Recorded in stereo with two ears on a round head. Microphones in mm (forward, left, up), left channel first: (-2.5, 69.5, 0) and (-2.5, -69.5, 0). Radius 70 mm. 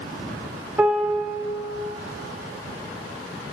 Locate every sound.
0.8 s a piano: 10° right (ahead or behind), 2 m